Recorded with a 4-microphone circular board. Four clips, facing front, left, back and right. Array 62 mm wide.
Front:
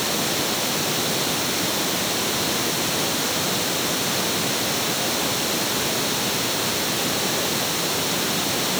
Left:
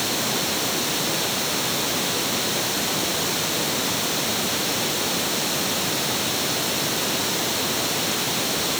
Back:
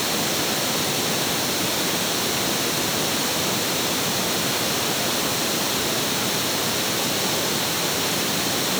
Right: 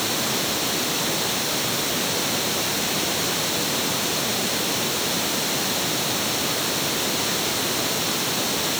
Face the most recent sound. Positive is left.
No sound to turn to.